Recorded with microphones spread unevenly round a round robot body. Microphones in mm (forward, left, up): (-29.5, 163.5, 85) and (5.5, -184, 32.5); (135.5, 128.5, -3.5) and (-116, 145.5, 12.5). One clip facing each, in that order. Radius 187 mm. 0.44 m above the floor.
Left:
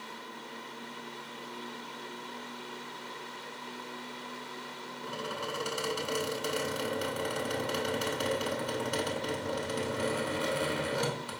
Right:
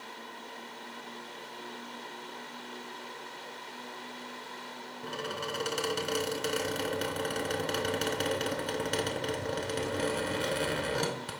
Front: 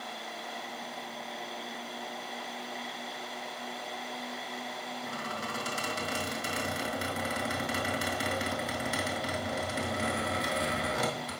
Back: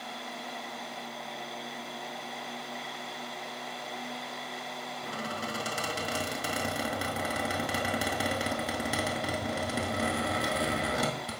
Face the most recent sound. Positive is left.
turn(degrees=-155)